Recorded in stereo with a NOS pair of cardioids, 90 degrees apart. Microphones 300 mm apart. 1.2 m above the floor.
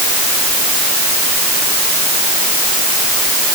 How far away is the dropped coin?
I don't hear a dropped coin.